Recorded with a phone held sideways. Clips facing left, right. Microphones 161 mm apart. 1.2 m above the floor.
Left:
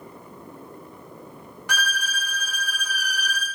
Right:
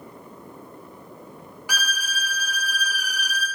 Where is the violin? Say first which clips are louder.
Left 2 dB; 5° right (ahead or behind), 0.7 m.